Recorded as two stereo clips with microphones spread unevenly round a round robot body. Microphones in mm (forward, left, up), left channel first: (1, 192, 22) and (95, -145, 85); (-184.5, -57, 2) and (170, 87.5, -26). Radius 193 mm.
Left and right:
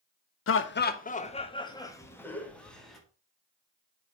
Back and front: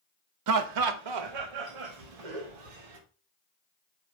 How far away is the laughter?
About 0.9 m.